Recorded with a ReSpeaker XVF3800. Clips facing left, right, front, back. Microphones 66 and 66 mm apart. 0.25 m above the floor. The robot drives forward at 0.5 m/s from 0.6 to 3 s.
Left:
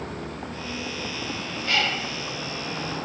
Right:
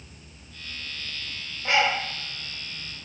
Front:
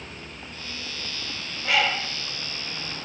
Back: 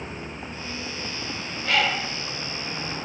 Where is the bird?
75° right; by 3.1 s 150° right.